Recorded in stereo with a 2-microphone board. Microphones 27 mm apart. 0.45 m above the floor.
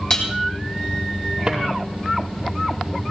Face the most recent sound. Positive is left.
turn(degrees=-25)  # may be behind; listen again after turning